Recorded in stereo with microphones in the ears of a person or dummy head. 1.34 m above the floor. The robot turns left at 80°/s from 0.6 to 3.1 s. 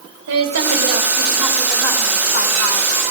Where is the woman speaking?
105° right, 3 m; by 2.9 s 75° left, 3 m.